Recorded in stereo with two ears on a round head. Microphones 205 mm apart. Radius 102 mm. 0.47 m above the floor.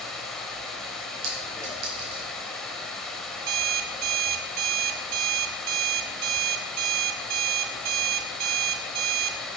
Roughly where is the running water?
Centre.